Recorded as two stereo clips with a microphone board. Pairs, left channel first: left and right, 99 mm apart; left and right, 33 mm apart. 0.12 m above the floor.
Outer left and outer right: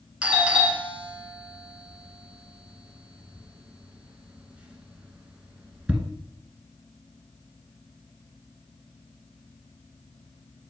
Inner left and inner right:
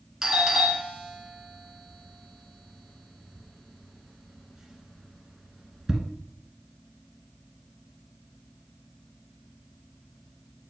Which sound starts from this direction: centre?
A doorbell, at 0.2 s.